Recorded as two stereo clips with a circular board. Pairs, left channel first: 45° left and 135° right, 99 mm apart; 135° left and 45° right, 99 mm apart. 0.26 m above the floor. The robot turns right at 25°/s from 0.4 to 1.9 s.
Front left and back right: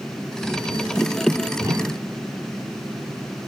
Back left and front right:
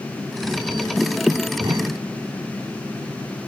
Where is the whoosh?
90° right; by 2.1 s 80° right.